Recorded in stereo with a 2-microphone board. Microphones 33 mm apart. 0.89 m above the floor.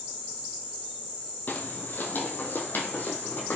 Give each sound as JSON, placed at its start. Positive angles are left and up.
{"t": 1.5, "sound": "footsteps", "side_deg": 60, "distance_m": 1.8}